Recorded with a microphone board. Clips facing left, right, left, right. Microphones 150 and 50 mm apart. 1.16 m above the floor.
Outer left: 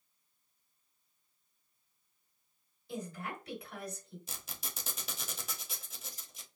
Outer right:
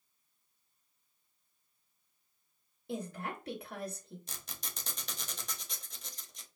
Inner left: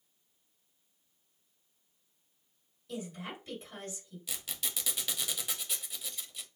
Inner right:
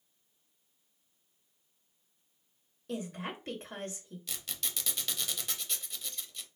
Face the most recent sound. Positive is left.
turn(degrees=5)  # may be behind; listen again after turning